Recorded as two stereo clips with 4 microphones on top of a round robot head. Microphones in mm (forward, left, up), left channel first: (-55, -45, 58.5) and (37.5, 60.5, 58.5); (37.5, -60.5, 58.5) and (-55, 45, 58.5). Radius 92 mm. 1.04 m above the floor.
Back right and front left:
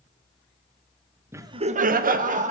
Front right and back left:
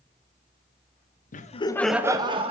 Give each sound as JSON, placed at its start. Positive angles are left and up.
{"t": 1.3, "sound": "laughter", "azimuth_deg": -25, "distance_m": 1.0}